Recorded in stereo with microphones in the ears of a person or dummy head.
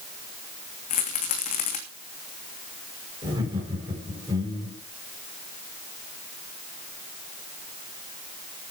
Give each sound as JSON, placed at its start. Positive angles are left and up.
{"t": 0.9, "sound": "a rattle", "side_deg": 40, "distance_m": 2.5}
{"t": 3.2, "sound": "laughter", "side_deg": -25, "distance_m": 7.0}